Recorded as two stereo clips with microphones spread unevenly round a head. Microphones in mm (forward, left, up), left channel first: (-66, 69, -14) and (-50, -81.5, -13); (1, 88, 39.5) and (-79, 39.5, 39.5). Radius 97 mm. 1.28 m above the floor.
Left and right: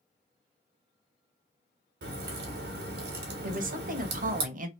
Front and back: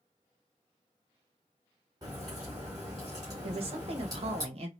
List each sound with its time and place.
2.0 s a crack: 80° right, 1.2 m
3.4 s a woman speaking: 120° right, 0.9 m